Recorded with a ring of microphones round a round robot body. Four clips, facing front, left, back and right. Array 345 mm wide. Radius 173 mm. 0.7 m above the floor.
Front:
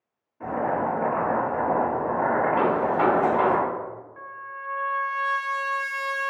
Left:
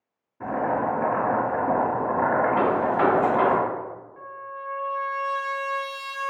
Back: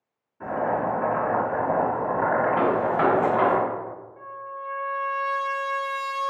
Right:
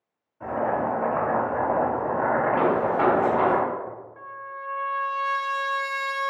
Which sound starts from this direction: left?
Boiling, at 0.4 s.